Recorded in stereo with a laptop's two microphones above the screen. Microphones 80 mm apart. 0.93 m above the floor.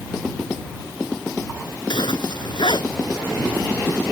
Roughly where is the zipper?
Left.